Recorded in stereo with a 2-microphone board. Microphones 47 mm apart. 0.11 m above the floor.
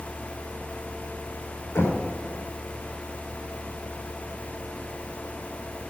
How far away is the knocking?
About 5.5 m.